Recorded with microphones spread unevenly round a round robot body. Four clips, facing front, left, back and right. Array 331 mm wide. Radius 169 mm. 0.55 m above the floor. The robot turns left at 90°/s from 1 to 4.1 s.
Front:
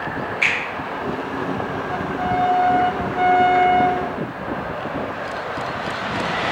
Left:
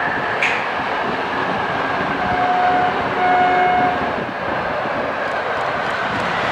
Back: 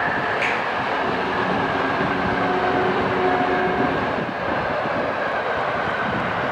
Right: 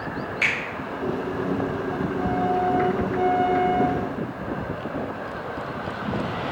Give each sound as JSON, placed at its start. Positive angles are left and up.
{"t": 0.4, "sound": "a finger snap", "azimuth_deg": -160, "distance_m": 2.0}